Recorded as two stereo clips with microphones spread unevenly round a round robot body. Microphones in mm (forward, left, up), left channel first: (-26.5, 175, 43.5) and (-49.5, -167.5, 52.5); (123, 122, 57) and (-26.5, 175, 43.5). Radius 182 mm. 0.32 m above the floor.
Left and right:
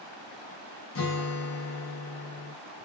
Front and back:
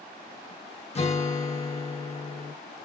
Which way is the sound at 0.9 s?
35° left.